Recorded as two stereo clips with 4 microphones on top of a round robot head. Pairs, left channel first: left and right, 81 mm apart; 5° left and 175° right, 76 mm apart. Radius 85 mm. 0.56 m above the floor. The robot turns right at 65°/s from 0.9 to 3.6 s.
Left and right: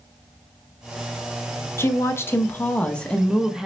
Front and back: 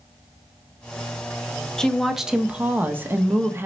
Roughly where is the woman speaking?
Left.